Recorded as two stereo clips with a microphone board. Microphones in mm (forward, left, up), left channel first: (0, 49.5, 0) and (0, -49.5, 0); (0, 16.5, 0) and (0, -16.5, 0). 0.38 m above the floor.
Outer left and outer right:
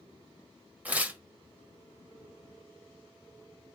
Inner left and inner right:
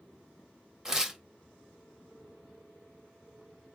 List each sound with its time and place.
0.8 s tearing paper: 15° right (ahead or behind), 0.8 m